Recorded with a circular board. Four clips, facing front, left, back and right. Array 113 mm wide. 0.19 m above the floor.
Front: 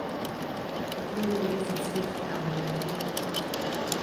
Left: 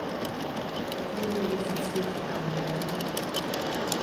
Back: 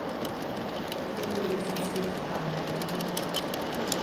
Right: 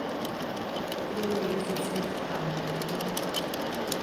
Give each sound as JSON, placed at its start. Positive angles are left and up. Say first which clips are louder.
{"t": 1.0, "sound": "a woman speaking", "louder": "even, front 3 dB", "azimuth_deg": -10, "distance_m": 1.8}